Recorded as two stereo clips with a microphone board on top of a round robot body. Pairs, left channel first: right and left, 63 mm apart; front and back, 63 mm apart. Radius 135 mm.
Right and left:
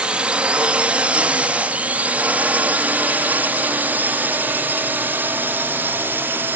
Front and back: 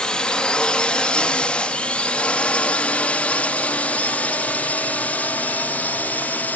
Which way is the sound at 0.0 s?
50° left.